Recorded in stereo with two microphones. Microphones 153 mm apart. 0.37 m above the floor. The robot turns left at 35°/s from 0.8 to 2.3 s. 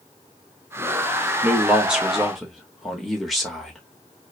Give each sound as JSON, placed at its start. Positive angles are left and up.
{"t": 1.4, "sound": "a man speaking", "side_deg": -10, "distance_m": 0.9}